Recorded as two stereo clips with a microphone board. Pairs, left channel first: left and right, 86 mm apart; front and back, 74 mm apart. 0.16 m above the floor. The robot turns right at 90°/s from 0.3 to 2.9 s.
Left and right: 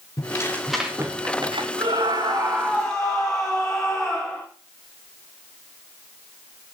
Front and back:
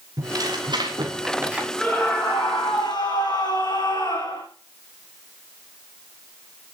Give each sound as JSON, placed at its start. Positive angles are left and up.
{"t": 0.2, "sound": "tearing paper", "azimuth_deg": 140, "distance_m": 4.5}
{"t": 1.8, "sound": "a scream", "azimuth_deg": -100, "distance_m": 9.5}